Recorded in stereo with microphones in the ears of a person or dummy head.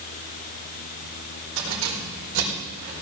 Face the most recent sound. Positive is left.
turn(degrees=-65)  # may be behind; listen again after turning